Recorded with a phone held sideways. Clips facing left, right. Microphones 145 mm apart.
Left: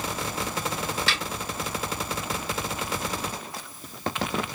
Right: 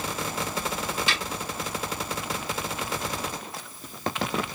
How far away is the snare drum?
About 4 m.